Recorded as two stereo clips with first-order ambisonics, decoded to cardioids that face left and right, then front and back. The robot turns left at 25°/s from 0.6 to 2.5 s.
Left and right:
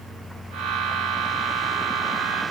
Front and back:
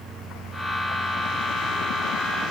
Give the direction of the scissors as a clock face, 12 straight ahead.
I don't hear scissors.